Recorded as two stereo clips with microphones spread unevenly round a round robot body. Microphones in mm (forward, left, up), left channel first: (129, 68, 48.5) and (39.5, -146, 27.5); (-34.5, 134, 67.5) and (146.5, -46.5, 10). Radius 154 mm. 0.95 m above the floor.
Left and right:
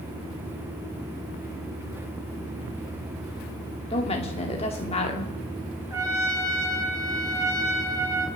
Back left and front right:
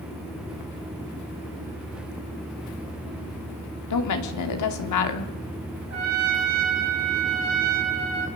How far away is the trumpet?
About 5 m.